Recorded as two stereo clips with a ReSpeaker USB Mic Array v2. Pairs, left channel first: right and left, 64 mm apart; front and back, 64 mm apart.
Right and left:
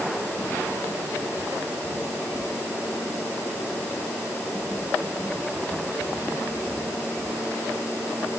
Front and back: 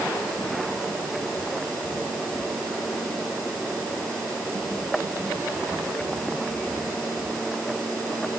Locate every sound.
Only background noise.